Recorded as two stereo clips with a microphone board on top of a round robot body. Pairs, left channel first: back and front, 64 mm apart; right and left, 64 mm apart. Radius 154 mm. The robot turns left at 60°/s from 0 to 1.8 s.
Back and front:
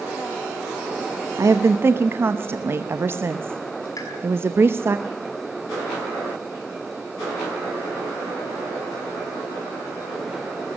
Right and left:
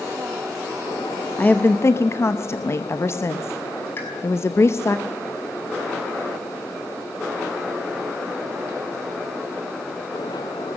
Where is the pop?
145° right, 6 m.